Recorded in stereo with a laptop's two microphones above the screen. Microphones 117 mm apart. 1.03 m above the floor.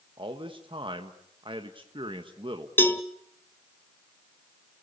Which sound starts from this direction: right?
A man speaking, at 0.2 s.